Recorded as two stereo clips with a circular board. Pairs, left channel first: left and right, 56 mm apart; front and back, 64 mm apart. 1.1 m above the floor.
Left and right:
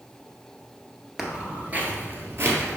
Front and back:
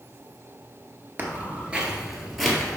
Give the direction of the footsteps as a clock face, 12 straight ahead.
5 o'clock.